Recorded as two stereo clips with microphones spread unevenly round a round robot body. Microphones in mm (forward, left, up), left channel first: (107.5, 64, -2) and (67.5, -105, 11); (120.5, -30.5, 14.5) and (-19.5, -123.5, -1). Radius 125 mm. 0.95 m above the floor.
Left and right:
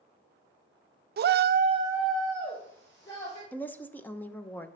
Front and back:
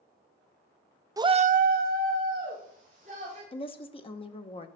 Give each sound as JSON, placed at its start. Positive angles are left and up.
{"t": 1.2, "sound": "a shout", "azimuth_deg": -80, "distance_m": 0.6}
{"t": 3.5, "sound": "a woman speaking", "azimuth_deg": 20, "distance_m": 0.7}